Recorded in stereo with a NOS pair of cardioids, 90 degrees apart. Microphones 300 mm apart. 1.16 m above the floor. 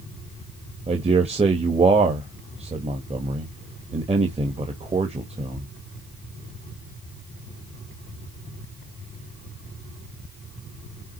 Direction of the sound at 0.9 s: 20° right.